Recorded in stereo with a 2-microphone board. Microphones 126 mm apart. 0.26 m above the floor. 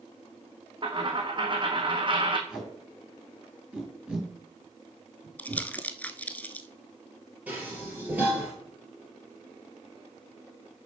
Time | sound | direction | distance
0.8 | a dropped coin | 40° right (ahead or behind) | 1.3 m
2.5 | tape being pulled | 5° right (ahead or behind) | 4 m
5.4 | crumpling | 10° left (ahead or behind) | 0.6 m
7.5 | dishes clattering | 10° right (ahead or behind) | 3.5 m